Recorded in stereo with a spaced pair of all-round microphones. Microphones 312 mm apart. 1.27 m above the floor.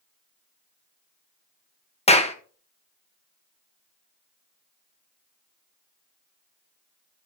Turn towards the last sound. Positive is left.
turn(degrees=20)  # may be behind; listen again after turning